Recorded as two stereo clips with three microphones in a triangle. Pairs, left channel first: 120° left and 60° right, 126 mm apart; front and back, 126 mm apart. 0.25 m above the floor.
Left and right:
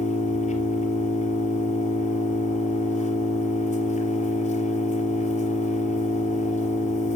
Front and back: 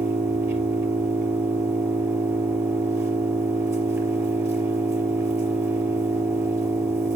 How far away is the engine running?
About 4 m.